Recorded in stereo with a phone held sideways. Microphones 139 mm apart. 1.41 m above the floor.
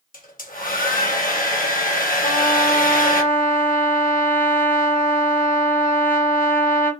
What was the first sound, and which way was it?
A hair dryer, 70° left (ahead or behind).